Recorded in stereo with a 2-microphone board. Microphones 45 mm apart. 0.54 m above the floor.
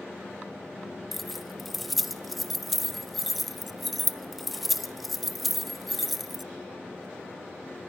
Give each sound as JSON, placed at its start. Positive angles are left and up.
{"t": 1.1, "sound": "keys jangling", "side_deg": 0, "distance_m": 0.5}